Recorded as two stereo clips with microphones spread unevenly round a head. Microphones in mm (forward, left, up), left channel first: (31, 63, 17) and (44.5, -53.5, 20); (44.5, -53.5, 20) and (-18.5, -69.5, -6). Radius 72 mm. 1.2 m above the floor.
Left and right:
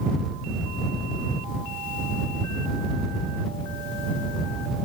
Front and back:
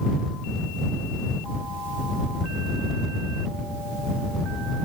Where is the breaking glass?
No breaking glass in this recording.